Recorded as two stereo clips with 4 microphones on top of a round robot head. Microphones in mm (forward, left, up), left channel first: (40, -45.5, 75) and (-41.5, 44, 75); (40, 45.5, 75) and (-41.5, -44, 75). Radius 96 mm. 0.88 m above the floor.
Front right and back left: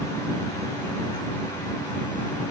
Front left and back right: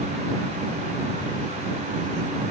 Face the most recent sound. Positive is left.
No sound to turn to.